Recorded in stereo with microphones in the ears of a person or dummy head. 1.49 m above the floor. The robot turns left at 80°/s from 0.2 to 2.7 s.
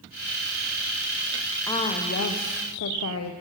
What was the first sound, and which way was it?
A woman speaking, 165° left.